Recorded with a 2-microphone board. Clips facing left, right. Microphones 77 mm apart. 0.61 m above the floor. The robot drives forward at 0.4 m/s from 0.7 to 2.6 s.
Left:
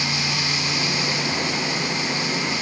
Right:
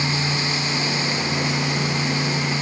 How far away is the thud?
I don't hear a thud.